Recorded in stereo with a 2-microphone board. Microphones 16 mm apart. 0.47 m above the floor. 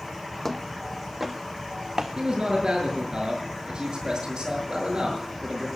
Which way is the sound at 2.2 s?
60° right (ahead or behind).